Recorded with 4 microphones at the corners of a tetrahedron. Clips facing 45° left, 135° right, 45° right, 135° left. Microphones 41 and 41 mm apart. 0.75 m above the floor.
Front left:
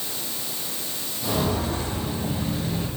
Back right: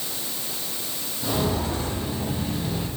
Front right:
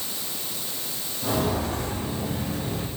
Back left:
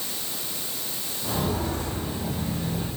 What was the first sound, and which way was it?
Footsteps, 65° right.